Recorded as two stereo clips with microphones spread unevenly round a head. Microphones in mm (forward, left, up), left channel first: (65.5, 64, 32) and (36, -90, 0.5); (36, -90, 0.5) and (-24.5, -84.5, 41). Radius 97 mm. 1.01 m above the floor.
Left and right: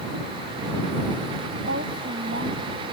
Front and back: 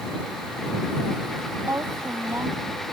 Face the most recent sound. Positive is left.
turn(degrees=-140)